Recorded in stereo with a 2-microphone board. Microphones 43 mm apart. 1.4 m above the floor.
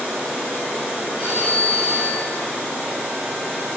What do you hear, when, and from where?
1.2 s a phone ringing: 35° right (ahead or behind), 3 m